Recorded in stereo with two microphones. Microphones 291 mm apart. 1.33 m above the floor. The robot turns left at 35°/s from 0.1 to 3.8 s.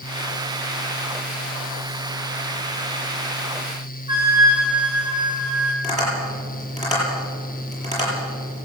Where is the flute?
75° right (ahead or behind), 4 m.